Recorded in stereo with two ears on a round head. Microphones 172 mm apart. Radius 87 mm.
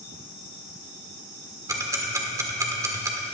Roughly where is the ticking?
Centre.